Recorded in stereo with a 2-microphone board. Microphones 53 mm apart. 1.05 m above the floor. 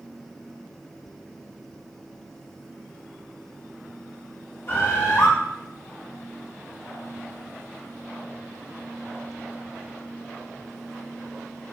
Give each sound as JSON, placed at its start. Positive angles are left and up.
{"t": 4.7, "sound": "a bird", "side_deg": 45, "distance_m": 0.8}